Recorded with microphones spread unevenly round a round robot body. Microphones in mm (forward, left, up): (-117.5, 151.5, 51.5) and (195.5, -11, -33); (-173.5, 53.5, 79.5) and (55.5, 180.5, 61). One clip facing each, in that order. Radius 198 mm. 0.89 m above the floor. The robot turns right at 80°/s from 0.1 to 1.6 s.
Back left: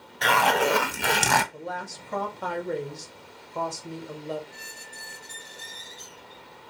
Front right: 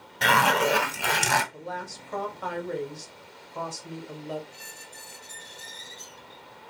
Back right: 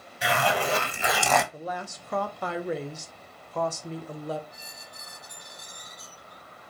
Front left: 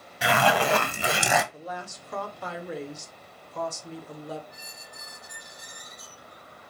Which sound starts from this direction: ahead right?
A squeak, at 4.5 s.